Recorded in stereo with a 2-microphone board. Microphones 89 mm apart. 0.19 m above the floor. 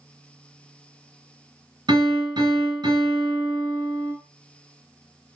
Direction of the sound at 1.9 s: 55° right (ahead or behind).